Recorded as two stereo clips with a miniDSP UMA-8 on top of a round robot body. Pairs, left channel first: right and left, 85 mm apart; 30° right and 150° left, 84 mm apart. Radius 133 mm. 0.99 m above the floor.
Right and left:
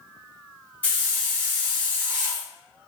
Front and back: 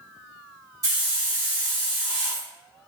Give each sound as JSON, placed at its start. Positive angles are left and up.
{"t": 0.8, "sound": "a hiss", "azimuth_deg": -160, "distance_m": 1.2}